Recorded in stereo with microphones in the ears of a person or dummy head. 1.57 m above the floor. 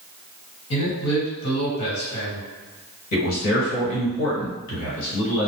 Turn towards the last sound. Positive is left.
turn(degrees=75)  # may be behind; listen again after turning